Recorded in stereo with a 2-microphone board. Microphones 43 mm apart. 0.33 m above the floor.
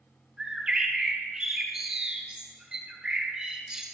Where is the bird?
15° right (ahead or behind), 2 m.